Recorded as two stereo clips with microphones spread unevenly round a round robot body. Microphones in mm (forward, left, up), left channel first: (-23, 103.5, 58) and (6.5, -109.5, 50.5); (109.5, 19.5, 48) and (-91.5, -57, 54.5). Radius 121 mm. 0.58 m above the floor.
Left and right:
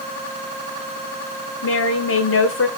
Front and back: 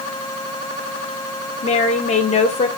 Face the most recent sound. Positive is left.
turn(degrees=80)